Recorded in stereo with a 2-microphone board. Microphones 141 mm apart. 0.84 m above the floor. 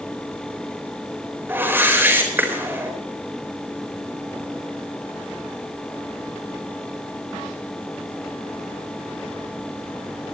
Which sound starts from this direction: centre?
A whoosh, at 1.5 s.